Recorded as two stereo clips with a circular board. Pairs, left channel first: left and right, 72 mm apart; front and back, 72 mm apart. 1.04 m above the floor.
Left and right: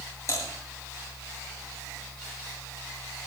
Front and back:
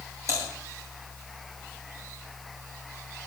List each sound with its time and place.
0.3 s typing on a keyboard: 135° left, 9.5 m